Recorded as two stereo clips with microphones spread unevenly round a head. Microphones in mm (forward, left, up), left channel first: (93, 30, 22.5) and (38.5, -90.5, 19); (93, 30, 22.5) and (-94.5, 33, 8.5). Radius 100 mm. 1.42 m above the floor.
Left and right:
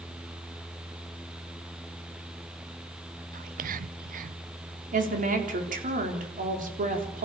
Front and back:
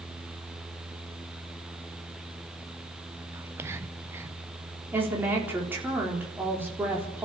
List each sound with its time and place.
3.3 s whispering: 100° right, 0.6 m
4.9 s a woman speaking: 100° right, 4 m